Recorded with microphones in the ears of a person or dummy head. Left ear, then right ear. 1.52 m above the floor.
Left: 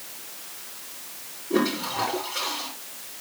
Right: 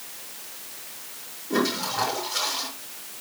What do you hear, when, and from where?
1.5 s a toilet flushing: 80° right, 5.5 m